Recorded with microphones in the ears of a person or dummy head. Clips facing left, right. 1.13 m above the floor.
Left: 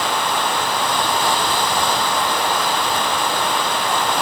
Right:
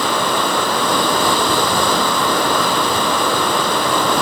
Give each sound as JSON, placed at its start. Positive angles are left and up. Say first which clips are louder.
{"t": 0.0, "sound": "running water", "louder": "right 3 dB", "side_deg": -80}